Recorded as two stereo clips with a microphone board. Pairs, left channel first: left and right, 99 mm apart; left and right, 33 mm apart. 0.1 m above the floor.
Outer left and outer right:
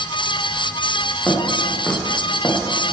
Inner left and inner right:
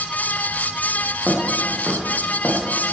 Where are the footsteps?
15° left (ahead or behind), 4.5 m; by 2.6 s 25° left (ahead or behind), 3.5 m.